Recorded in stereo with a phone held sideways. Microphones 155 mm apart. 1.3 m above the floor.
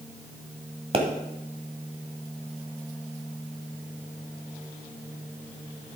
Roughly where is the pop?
Right.